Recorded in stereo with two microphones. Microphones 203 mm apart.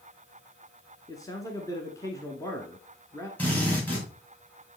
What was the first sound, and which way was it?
A man speaking, 15° left (ahead or behind).